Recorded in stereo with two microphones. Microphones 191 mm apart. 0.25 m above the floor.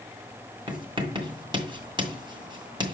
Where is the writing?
25° right (ahead or behind), 2 m.